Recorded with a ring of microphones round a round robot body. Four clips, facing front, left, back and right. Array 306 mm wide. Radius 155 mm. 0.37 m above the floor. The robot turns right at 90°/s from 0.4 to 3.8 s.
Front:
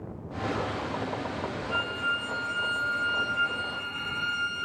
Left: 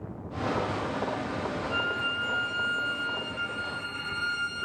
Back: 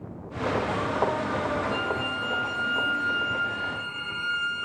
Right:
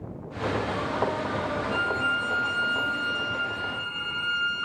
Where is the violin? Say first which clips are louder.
Right 4 dB, back 2 dB; 140° right, 1.0 m; by 4.7 s 50° left, 1.0 m.